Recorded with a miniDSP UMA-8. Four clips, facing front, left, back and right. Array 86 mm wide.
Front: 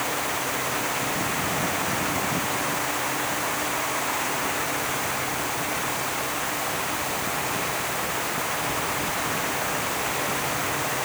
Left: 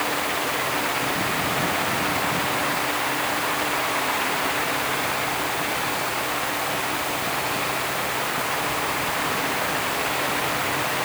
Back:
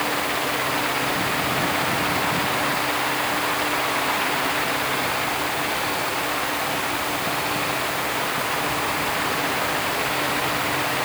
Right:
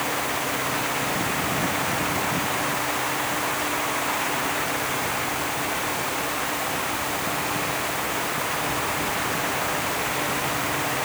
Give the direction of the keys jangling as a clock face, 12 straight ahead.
I don't hear keys jangling.